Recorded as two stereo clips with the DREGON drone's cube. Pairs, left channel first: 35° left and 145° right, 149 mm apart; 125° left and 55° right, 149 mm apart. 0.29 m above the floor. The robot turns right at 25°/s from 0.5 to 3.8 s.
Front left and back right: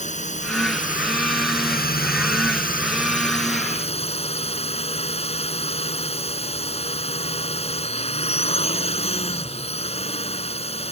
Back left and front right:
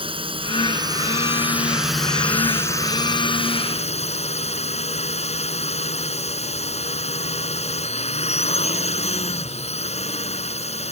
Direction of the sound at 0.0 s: Straight ahead.